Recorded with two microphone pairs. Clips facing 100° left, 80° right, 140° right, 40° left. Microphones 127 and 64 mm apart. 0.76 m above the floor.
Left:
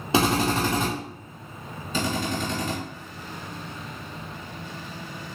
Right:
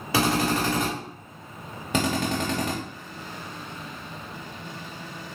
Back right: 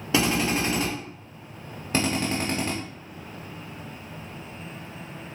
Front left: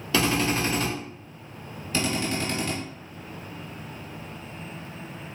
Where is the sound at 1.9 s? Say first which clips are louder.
Right 2 dB, back right 2 dB; 95° right, 0.9 m.